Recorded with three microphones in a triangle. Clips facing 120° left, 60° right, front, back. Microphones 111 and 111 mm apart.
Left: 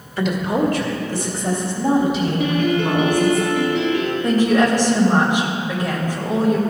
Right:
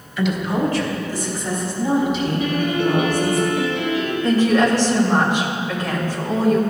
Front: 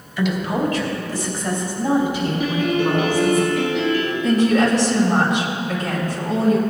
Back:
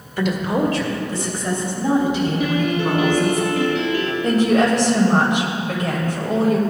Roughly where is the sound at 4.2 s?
Behind.